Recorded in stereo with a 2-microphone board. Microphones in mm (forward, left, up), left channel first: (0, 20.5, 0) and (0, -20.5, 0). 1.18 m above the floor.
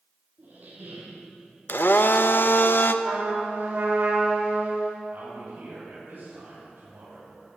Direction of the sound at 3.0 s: 60° right (ahead or behind).